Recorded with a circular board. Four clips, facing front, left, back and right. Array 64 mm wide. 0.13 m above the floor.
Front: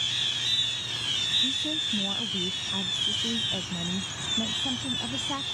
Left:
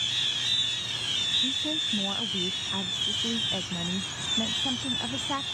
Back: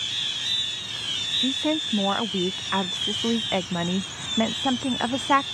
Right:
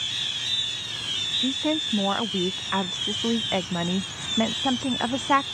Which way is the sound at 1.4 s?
140° right.